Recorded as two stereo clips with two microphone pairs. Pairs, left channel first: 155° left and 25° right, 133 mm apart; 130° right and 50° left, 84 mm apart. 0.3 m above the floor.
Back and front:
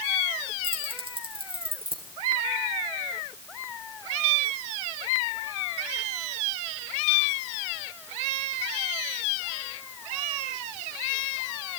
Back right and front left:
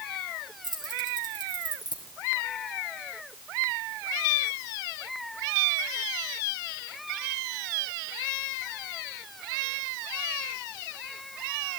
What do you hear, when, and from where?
0.6 s keys jangling: 25° left, 4 m